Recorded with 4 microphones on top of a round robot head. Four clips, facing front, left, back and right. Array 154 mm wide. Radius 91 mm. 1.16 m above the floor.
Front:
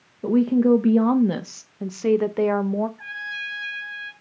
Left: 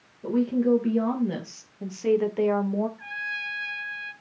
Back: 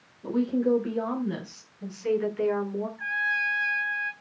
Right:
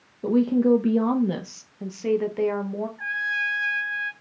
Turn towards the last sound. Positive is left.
turn(degrees=-65)